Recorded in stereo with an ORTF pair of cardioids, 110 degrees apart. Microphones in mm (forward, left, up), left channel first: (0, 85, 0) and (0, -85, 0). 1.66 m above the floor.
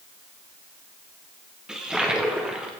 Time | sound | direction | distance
1.7 | a toilet flushing | 5° right | 1.3 m